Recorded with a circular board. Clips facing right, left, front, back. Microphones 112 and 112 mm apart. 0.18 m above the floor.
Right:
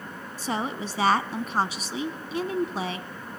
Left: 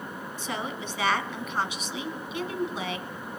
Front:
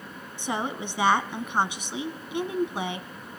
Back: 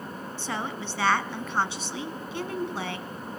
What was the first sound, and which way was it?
A woman speaking, 65° right.